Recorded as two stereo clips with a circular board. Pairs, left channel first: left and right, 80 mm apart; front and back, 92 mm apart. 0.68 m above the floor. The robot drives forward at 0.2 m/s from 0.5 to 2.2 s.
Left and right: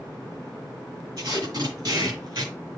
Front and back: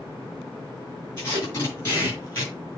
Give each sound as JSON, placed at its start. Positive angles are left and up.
{"t": 1.2, "sound": "tape being pulled", "azimuth_deg": -65, "distance_m": 6.5}